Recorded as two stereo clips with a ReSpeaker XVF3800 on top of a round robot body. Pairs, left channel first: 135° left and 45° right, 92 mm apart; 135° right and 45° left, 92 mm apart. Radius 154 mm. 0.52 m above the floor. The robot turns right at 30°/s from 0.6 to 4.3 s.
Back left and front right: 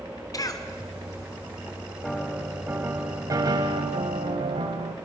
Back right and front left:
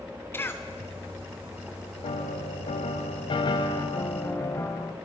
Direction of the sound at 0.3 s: 170° left.